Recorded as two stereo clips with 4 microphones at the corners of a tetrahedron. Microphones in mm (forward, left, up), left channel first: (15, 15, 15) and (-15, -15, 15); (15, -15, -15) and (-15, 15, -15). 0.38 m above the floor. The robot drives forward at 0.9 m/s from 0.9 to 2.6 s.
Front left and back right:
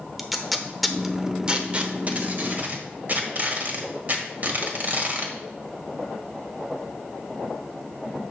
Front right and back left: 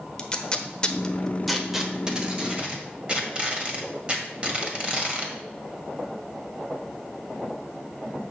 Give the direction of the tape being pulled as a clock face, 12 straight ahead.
1 o'clock.